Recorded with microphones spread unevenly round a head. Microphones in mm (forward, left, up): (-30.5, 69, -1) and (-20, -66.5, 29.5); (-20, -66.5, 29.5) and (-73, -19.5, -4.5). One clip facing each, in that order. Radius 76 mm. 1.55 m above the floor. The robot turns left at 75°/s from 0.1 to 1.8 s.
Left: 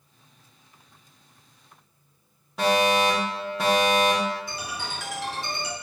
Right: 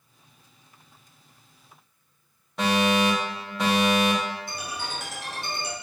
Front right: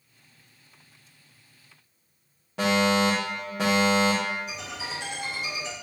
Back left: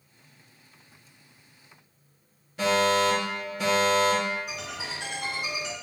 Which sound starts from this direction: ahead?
A fire alarm, at 2.6 s.